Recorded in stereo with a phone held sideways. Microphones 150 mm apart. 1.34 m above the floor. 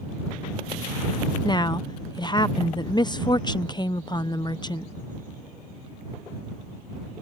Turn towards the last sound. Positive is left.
turn(degrees=30)  # may be behind; listen again after turning